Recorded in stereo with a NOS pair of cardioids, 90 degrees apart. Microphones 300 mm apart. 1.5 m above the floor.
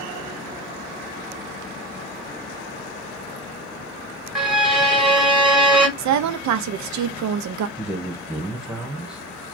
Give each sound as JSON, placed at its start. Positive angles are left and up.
{"t": 4.3, "sound": "a violin", "azimuth_deg": 0, "distance_m": 1.3}
{"t": 6.0, "sound": "a woman speaking", "azimuth_deg": -70, "distance_m": 0.7}
{"t": 7.8, "sound": "a man speaking", "azimuth_deg": -5, "distance_m": 1.3}